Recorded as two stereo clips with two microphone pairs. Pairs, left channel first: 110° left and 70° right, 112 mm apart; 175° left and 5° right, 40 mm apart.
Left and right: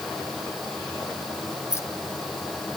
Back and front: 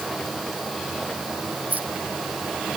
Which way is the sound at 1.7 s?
40° left.